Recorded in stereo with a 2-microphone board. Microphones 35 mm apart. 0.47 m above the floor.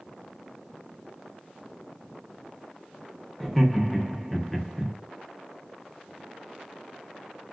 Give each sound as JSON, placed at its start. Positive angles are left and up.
{"t": 3.4, "sound": "laughter", "side_deg": 5, "distance_m": 0.7}